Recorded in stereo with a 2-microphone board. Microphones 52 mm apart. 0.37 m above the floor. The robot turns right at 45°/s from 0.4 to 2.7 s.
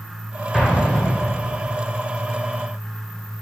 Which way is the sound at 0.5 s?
10° left.